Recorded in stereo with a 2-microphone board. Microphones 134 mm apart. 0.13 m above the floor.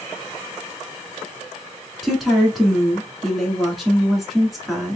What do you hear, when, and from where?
2.0 s a woman speaking: centre (ahead or behind), 1.4 m